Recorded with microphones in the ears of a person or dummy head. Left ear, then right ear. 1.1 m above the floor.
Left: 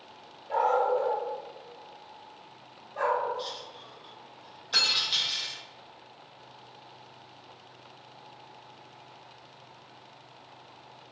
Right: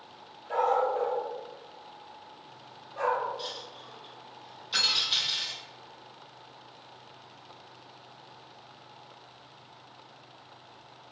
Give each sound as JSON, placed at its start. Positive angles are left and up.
{"t": 0.5, "sound": "a dog barking", "side_deg": -20, "distance_m": 1.7}
{"t": 3.4, "sound": "a dropped coin", "side_deg": -10, "distance_m": 0.7}
{"t": 4.7, "sound": "cutlery clinking", "side_deg": 50, "distance_m": 1.7}